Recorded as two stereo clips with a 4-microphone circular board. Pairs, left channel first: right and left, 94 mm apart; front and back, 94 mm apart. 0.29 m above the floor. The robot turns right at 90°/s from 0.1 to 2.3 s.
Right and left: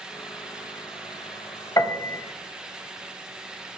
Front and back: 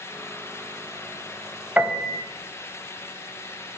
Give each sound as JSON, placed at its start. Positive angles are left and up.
{"t": 1.8, "sound": "a piano", "azimuth_deg": -115, "distance_m": 0.6}